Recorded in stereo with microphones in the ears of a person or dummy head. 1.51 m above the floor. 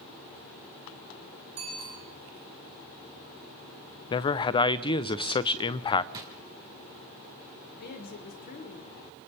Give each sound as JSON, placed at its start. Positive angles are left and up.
{"t": 1.6, "sound": "a bicycle bell", "side_deg": -35, "distance_m": 9.5}
{"t": 4.1, "sound": "a man speaking", "side_deg": 25, "distance_m": 0.7}
{"t": 6.1, "sound": "a drawer", "side_deg": -20, "distance_m": 3.0}
{"t": 7.7, "sound": "a woman speaking", "side_deg": 50, "distance_m": 2.0}